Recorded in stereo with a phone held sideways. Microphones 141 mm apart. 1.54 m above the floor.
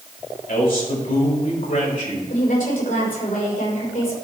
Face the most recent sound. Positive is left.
turn(degrees=85)